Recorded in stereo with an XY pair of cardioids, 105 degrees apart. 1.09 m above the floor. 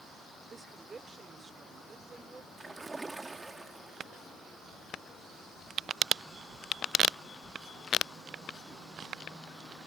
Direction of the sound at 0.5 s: 35° right.